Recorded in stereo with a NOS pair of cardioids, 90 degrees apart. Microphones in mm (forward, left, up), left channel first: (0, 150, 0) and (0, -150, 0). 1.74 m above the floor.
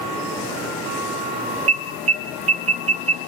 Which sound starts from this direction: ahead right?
An alarm, at 1.7 s.